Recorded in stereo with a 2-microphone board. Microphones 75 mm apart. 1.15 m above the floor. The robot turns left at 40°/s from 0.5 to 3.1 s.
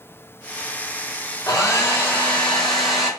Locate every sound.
1.5 s a hair dryer: 50° left, 1.0 m; by 3.1 s 15° right, 1.0 m